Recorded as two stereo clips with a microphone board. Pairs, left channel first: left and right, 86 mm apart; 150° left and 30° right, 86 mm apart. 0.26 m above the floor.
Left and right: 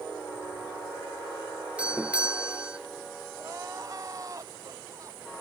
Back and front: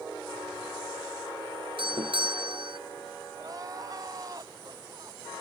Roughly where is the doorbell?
Ahead.